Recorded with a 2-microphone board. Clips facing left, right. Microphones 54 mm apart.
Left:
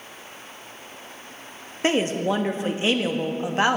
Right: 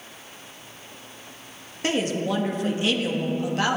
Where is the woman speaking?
25° left (ahead or behind), 0.8 m.